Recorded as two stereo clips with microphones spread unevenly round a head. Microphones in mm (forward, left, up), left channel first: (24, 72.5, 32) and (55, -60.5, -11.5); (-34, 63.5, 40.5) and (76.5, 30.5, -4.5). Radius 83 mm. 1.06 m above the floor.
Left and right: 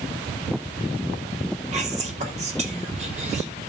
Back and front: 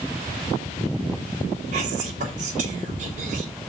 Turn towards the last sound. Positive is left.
turn(degrees=-40)